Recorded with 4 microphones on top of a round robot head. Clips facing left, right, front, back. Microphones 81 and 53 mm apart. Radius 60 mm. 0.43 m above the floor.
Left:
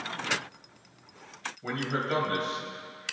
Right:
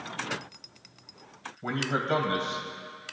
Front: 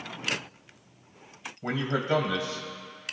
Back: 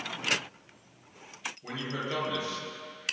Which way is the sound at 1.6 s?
35° right.